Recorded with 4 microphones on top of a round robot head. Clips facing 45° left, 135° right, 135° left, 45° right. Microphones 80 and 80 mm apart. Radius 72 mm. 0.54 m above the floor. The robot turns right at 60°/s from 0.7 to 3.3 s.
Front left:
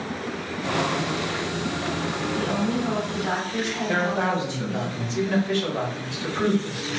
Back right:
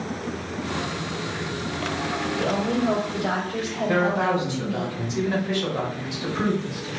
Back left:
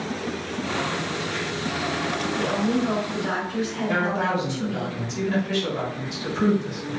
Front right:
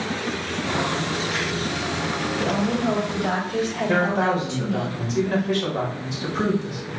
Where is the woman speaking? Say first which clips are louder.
Back right 2 dB, even; 115° right, 2 m; by 4.9 s 55° right, 2 m.